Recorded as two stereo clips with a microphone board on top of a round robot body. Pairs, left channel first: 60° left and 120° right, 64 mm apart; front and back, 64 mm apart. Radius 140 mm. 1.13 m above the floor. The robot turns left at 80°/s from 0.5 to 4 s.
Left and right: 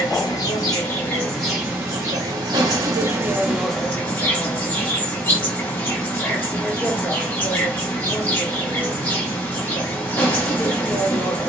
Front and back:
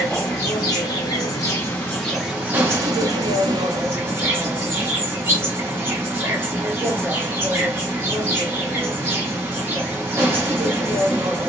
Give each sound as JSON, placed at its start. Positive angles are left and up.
{"t": 0.0, "sound": "an insect", "azimuth_deg": 45, "distance_m": 1.0}